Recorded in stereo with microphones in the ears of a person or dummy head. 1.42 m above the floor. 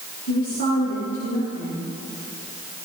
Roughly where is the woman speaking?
Left.